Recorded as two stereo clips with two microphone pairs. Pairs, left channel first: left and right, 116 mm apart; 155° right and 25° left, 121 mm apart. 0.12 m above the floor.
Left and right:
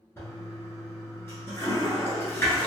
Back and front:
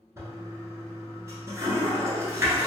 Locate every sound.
0.2 s a toilet flushing: 55° left, 1.0 m